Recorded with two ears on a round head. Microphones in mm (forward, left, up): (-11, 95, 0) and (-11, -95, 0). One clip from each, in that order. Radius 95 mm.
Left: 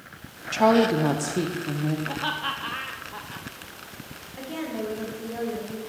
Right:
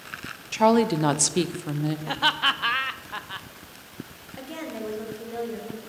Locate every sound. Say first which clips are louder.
0.5 s a woman speaking: left 1 dB; 5° right (ahead or behind), 0.6 m; by 2.0 s 70° right (ahead or behind), 0.8 m
2.1 s laughter: right 9 dB; 60° right (ahead or behind), 0.5 m
4.3 s a woman speaking: left 3 dB; 15° right (ahead or behind), 1.7 m